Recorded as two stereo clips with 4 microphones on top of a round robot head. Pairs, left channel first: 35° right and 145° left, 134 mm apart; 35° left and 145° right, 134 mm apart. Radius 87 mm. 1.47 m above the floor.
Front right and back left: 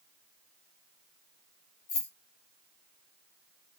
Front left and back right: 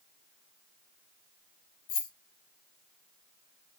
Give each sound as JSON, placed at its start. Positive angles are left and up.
{"t": 1.9, "sound": "keys jangling", "azimuth_deg": 15, "distance_m": 1.1}